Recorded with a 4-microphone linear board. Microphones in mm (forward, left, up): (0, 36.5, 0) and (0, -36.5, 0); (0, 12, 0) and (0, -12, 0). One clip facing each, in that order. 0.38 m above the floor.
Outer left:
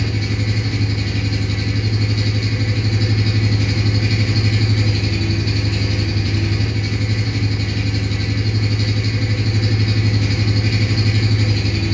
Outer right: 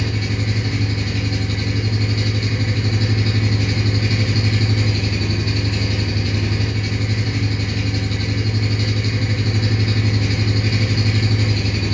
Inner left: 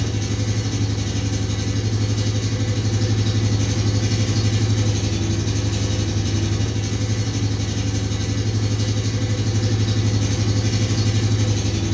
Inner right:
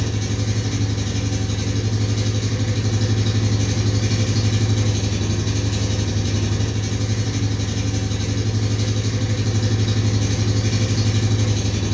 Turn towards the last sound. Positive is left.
turn(degrees=-25)  # may be behind; listen again after turning